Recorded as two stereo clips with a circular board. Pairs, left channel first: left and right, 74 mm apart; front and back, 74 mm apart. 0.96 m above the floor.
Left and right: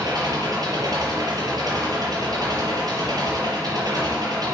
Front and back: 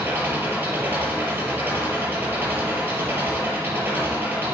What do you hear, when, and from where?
0.0 s an engine running: 115° right, 5.5 m